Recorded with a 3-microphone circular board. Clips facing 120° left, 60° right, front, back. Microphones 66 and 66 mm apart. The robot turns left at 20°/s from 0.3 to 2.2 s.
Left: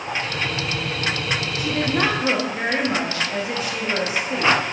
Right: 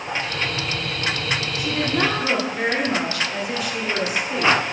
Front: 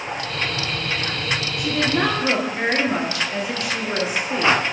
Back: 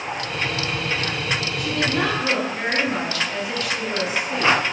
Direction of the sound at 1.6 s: 80° left.